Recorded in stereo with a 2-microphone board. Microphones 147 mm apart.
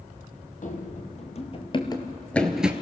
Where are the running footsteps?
55° left (ahead or behind), 2.5 m; by 2.7 s 10° right (ahead or behind), 1.2 m.